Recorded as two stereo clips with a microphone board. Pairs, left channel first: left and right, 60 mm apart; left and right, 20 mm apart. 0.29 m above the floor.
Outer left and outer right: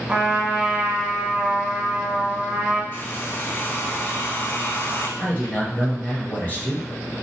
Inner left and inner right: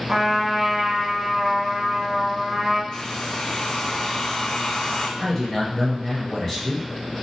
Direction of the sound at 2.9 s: 35° left (ahead or behind).